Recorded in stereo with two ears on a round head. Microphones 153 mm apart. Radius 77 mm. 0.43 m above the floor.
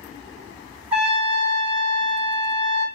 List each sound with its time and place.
0.9 s a trumpet: 10° right (ahead or behind), 1.3 m